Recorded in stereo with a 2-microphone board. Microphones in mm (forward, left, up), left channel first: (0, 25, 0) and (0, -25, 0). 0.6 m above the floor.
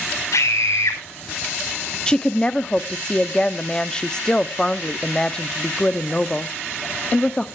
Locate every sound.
0.3 s a scream: 80° left, 4.5 m
2.1 s a woman speaking: 15° left (ahead or behind), 0.7 m